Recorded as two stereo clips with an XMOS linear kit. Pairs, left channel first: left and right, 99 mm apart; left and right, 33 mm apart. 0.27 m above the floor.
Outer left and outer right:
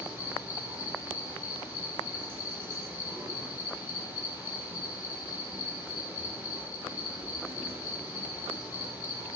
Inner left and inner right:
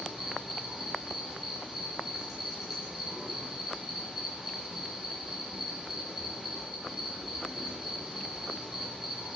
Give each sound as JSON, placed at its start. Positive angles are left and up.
{"t": 0.0, "sound": "an insect", "side_deg": -25, "distance_m": 6.0}